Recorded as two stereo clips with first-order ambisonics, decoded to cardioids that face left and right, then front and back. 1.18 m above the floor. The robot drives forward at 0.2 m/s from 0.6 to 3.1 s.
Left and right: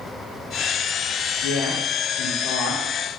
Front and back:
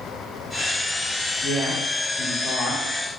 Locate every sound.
1.4 s a woman speaking: 70° left, 1.9 m; by 3.2 s 80° left, 1.8 m